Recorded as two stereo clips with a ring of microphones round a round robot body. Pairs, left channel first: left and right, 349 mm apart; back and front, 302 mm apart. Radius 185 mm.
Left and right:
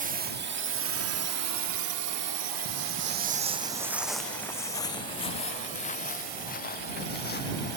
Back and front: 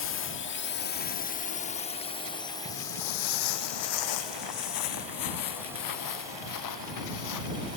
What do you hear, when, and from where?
0.0 s a drone: 150° right; by 7.8 s 80° right
2.6 s footsteps: 135° right; by 7.8 s 155° left